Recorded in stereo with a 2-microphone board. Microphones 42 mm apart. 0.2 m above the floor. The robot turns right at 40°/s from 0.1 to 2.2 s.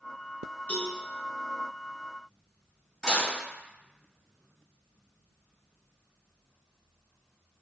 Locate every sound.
0.7 s a cowbell: 40° left (ahead or behind), 1.3 m; by 0.9 s 35° left (ahead or behind), 1.3 m
3.0 s dishes clattering: 20° left (ahead or behind), 1.6 m